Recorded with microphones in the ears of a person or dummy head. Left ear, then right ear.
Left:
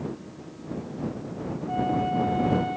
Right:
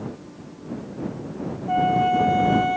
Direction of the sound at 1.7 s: 60° right (ahead or behind).